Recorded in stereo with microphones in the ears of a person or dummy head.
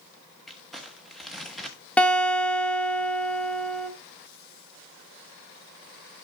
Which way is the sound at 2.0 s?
5° left (ahead or behind).